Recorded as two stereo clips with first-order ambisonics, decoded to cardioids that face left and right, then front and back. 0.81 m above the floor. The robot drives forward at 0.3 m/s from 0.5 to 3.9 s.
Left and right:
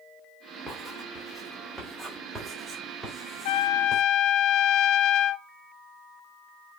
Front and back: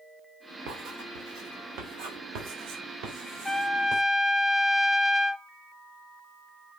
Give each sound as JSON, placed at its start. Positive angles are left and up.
{"t": 0.7, "sound": "writing", "azimuth_deg": -170, "distance_m": 3.5}
{"t": 3.5, "sound": "a trumpet", "azimuth_deg": 90, "distance_m": 0.6}